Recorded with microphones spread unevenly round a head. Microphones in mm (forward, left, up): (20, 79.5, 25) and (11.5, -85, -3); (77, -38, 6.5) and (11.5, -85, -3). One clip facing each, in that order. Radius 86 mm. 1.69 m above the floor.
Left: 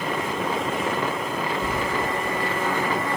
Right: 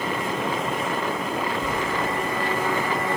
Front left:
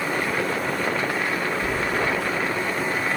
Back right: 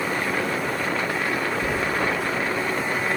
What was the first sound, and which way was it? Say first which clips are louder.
Keys jangling: even, even; 130° left.